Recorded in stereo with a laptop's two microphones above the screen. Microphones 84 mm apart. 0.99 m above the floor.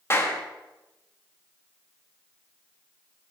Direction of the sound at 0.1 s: 30° left (ahead or behind).